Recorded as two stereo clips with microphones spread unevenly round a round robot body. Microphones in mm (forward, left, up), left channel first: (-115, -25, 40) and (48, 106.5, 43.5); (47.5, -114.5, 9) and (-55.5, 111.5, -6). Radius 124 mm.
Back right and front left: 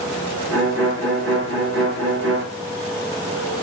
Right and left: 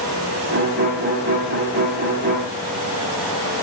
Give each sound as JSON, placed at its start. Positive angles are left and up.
{"t": 0.5, "sound": "a violin", "azimuth_deg": 60, "distance_m": 8.0}